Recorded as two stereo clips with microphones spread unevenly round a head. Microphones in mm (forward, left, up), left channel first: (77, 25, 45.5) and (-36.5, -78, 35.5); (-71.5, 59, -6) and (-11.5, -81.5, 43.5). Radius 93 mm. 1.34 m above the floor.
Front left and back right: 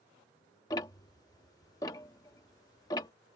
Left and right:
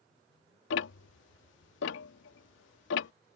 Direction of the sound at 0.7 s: 110° left.